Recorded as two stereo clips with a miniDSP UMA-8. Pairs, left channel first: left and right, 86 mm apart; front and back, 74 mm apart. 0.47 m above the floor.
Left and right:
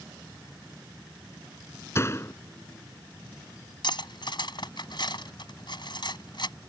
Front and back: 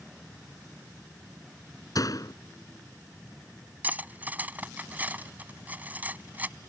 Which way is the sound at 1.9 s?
35° left.